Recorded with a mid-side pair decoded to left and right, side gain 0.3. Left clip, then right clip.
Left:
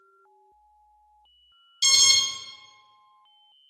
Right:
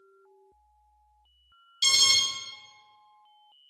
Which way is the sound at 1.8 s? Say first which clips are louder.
Left 3 dB; 40° left.